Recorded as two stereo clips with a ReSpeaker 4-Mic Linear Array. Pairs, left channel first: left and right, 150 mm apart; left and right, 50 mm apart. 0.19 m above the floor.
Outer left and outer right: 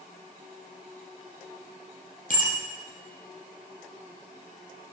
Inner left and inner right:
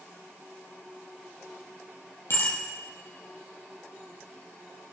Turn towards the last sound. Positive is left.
turn(degrees=60)  # may be behind; listen again after turning